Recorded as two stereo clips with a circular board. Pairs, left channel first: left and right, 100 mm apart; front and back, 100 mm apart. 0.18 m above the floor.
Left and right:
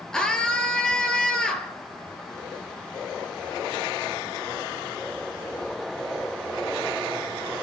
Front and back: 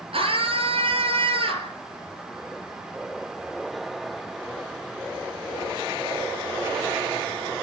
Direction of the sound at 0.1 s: 170° left.